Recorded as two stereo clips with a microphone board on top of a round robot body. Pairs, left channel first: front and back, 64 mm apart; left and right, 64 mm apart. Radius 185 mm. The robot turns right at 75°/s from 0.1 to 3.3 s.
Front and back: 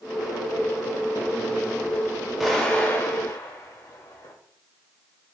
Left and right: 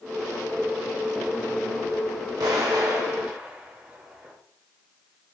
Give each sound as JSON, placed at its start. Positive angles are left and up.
{"t": 2.4, "sound": "an explosion", "azimuth_deg": -95, "distance_m": 1.3}